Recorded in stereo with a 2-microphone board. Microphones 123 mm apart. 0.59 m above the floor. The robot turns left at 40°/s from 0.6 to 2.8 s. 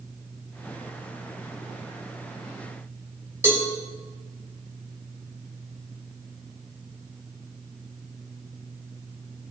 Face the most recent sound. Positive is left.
turn(degrees=-20)  # may be behind; listen again after turning